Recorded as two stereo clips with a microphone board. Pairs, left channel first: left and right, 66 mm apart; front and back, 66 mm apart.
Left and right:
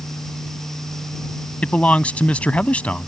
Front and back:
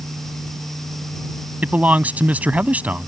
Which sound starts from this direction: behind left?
A man speaking, at 1.6 s.